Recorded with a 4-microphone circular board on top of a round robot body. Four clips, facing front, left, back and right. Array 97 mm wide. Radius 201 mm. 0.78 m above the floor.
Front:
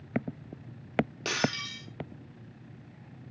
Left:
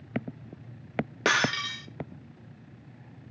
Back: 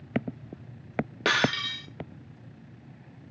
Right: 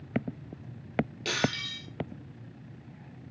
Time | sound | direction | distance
1.2 | breaking glass | 115° left | 1.2 m